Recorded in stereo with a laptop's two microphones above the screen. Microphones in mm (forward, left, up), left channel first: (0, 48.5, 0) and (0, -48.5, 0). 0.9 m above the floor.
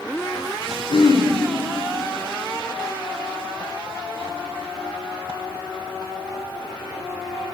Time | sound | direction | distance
0.9 | throat clearing | 80° left | 1.1 m